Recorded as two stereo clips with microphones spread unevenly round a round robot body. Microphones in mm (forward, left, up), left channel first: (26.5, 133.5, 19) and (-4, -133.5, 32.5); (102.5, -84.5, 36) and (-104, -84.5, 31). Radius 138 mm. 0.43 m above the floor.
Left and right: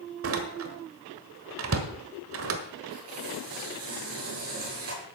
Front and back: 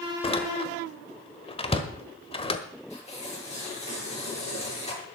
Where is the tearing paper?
60° right, 7 m.